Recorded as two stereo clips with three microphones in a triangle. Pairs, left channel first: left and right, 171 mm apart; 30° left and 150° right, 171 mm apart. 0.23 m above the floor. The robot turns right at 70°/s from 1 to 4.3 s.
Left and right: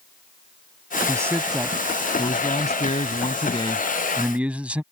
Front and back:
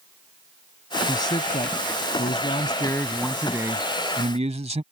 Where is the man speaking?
35° right; by 4.8 s 170° right.